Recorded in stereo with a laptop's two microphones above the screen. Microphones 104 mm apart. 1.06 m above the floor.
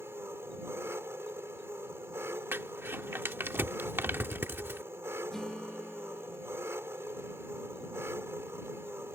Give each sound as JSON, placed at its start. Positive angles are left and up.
{"t": 0.0, "sound": "an engine running", "side_deg": -25}
{"t": 2.5, "sound": "crumpling", "side_deg": -20}
{"t": 5.3, "sound": "a guitar", "side_deg": 5}